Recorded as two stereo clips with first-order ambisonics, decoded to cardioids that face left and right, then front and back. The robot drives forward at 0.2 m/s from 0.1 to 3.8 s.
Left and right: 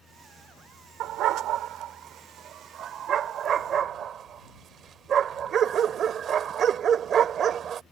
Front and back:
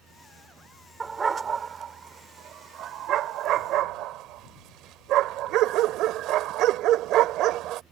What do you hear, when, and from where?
1.0 s a dog barking: 105° right; by 7.8 s 145° right